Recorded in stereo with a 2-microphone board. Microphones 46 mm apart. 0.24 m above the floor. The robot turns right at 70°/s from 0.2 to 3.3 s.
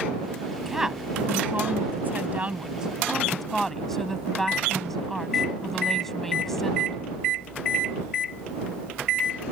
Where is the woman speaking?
Straight behind; by 7.0 s 10° left.